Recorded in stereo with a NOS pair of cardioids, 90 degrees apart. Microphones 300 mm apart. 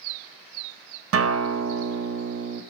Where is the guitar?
50° right, 1.0 m.